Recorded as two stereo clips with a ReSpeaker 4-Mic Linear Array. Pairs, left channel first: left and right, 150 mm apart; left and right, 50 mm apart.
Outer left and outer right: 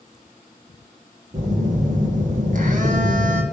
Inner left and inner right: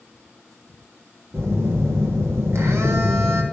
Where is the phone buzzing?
60° right (ahead or behind), 1.3 m.